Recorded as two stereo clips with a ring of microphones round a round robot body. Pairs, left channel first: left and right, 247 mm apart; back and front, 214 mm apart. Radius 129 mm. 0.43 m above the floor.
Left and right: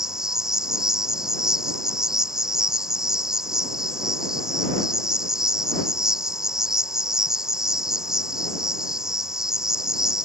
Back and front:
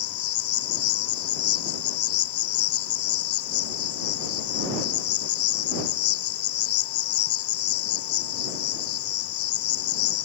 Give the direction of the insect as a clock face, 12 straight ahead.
6 o'clock.